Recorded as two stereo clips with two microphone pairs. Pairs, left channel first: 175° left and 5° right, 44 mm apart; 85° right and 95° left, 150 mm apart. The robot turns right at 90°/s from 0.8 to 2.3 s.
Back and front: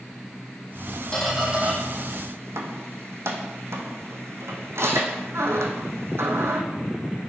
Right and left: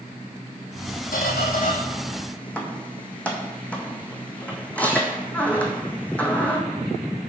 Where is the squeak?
110° right, 1.0 m; by 6.6 s 5° right, 1.0 m.